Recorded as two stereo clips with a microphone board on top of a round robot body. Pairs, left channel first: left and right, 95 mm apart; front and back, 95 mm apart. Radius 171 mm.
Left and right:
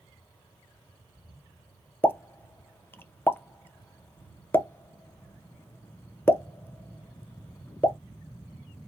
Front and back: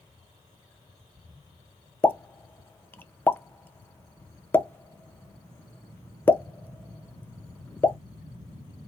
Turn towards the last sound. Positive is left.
turn(degrees=50)